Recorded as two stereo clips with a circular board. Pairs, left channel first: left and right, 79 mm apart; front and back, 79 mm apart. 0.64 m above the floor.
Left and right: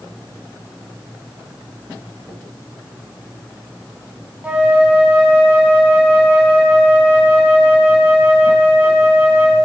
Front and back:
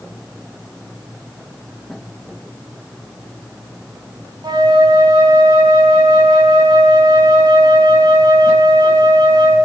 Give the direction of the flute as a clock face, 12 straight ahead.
5 o'clock.